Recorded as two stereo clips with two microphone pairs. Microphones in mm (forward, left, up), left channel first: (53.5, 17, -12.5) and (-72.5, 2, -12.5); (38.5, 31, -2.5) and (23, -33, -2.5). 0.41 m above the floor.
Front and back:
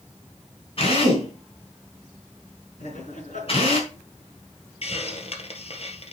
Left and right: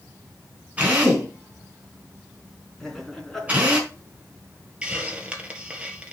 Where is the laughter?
10° right, 4 m.